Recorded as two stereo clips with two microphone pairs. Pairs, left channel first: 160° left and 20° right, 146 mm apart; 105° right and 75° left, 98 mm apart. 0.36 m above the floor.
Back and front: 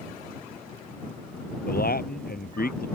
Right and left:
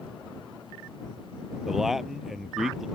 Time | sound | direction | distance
1.7 | a man speaking | 165° left | ?